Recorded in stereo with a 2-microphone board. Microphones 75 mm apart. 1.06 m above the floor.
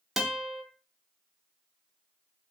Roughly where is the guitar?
Centre.